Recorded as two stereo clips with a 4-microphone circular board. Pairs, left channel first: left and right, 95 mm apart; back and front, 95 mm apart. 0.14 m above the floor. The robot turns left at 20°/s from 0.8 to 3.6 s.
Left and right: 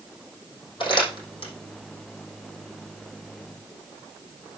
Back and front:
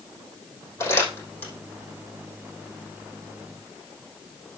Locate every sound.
0.8 s crumpling: 125° left, 5.5 m; by 1.5 s 110° left, 5.5 m